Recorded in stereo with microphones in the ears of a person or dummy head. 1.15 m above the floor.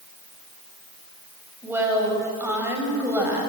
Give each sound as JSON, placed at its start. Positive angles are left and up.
{"t": 1.6, "sound": "a woman speaking", "side_deg": -10, "distance_m": 6.0}